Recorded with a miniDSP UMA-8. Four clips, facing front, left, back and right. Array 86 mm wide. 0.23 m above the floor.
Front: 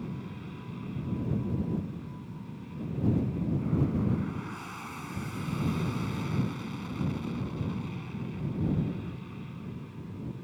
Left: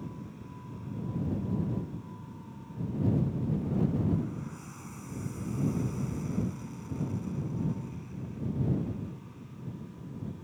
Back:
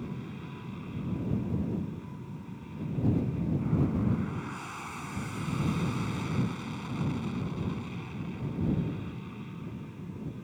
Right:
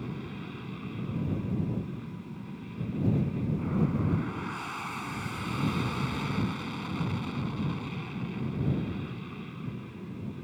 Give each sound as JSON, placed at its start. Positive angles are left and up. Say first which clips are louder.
{"t": 0.0, "sound": "an aircraft", "louder": "right 5 dB, even", "azimuth_deg": -100}